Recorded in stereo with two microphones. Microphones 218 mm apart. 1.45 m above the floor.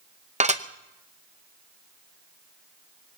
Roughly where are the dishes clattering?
Right.